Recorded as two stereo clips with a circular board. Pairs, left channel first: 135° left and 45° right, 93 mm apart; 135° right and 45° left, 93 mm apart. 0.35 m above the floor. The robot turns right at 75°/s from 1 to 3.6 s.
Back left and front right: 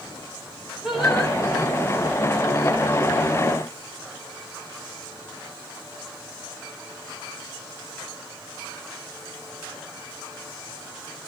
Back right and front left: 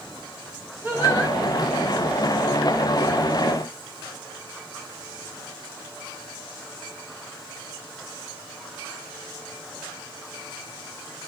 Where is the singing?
35° left, 1.5 m; by 1.4 s 60° left, 1.5 m.